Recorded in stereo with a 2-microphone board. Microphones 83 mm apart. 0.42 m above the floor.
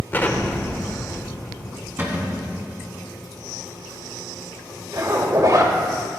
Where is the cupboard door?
25° right (ahead or behind), 1.9 m.